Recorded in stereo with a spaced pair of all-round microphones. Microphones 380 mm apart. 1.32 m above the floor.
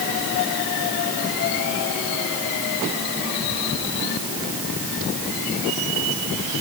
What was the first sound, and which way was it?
Only background noise.